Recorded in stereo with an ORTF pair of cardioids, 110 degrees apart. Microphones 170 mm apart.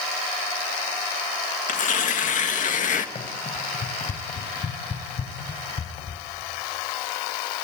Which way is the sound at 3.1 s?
40° left.